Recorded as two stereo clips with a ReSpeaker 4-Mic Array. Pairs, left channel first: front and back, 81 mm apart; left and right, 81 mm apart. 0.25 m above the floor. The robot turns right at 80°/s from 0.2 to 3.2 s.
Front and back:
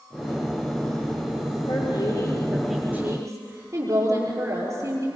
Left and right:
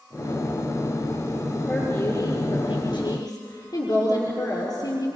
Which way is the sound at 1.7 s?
5° left.